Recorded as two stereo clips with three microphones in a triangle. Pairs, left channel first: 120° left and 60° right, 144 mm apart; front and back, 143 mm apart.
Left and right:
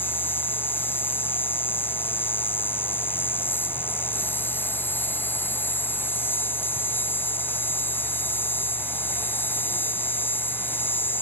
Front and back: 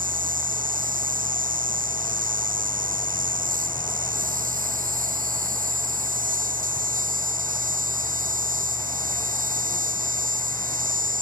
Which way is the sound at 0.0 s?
165° right.